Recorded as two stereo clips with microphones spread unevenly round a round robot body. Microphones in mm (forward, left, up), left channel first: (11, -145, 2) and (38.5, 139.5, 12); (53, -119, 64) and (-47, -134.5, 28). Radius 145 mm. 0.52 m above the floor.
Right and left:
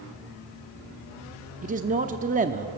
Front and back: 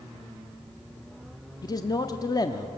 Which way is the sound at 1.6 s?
65° left.